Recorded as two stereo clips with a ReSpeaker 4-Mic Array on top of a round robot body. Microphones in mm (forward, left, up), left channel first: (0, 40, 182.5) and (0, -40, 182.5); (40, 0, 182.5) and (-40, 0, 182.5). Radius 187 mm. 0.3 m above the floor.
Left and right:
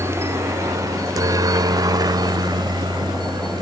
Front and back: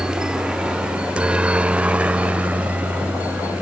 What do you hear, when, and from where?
0.0 s a helicopter: 105° right; by 3.6 s 110° right